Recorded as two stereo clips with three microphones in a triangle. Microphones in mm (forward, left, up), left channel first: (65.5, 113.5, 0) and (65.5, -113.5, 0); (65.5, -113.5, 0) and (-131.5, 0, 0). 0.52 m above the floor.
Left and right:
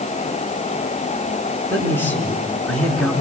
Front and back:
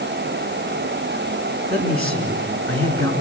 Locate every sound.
1.7 s a man speaking: 170° left, 6.5 m; by 3.1 s straight behind, 6.5 m